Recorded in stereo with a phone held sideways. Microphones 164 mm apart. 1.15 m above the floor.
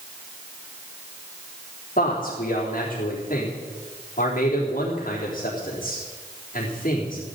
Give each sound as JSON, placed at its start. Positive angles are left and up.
{"t": 2.0, "sound": "a man speaking", "side_deg": 55, "distance_m": 3.5}